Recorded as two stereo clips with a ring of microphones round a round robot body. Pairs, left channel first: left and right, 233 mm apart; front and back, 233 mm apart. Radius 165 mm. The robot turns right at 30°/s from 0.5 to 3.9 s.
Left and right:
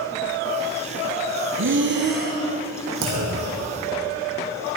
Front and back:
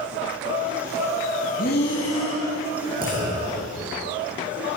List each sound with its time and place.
1.6 s breathing: 65° right, 3.5 m; by 2.4 s 40° right, 3.5 m
3.0 s a clunk: 115° right, 5 m; by 3.7 s 95° right, 5 m